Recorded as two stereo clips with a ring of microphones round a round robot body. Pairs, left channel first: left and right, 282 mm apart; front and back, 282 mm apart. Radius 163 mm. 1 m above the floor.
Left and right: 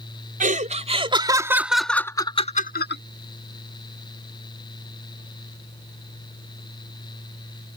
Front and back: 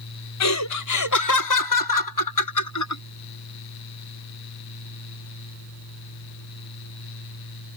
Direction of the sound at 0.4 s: 30° right.